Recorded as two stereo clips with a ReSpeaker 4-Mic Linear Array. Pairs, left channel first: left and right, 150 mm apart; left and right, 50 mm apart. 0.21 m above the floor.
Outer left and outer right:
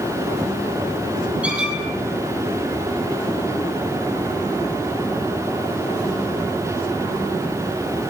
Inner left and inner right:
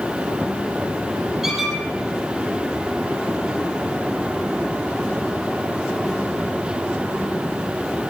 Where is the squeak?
5° right (ahead or behind), 4 m.